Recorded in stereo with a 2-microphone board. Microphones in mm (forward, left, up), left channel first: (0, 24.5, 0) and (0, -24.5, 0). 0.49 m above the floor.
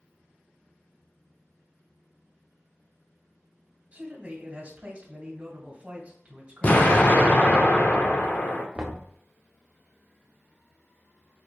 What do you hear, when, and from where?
3.9 s a man speaking: 30° right (ahead or behind), 2 m
6.6 s an explosion: 35° left (ahead or behind), 0.5 m
8.8 s knocking: 20° right (ahead or behind), 0.6 m